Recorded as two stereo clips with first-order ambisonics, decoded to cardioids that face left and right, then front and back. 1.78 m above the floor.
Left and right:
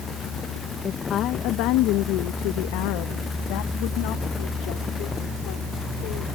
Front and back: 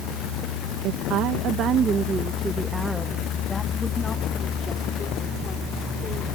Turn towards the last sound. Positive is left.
turn(degrees=60)